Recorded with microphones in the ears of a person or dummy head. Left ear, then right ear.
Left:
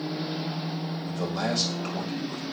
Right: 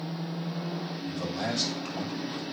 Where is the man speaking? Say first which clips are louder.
Left 3 dB; 70° left (ahead or behind), 6 m.